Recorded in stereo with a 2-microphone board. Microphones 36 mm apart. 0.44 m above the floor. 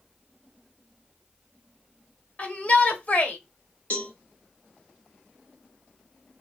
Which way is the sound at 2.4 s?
35° left (ahead or behind).